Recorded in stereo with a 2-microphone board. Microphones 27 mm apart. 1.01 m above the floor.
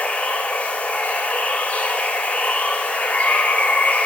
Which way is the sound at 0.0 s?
60° left (ahead or behind).